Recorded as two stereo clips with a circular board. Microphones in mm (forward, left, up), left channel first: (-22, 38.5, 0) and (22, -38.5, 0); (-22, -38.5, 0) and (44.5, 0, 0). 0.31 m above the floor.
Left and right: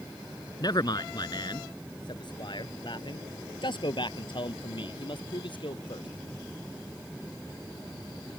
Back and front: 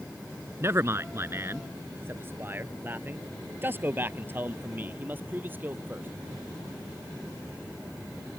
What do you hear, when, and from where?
0.6 s a man speaking: 80° left; by 6.1 s 95° left